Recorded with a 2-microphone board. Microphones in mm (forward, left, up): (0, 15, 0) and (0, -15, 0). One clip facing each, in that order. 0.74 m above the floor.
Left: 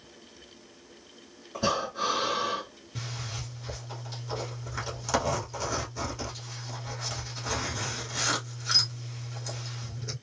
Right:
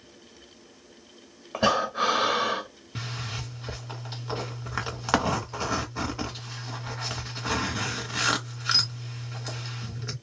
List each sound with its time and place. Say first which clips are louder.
1.5 s breathing: right 5 dB; 55° right (ahead or behind), 1.7 m
3.0 s a zipper: right 3 dB; 40° right (ahead or behind), 1.2 m